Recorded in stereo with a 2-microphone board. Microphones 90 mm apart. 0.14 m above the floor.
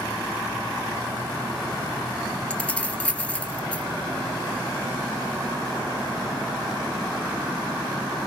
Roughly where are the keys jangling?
Centre.